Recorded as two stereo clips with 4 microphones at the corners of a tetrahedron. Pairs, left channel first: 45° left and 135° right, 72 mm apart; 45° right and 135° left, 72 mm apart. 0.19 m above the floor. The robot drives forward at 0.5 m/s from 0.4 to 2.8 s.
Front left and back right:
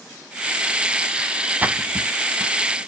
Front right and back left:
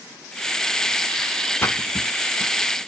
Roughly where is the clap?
I don't hear a clap.